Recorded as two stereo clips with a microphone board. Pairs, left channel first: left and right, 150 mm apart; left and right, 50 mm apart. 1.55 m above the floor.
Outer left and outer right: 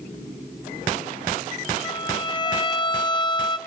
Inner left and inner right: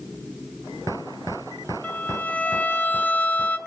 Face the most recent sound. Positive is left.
turn(degrees=30)  # may be behind; listen again after turning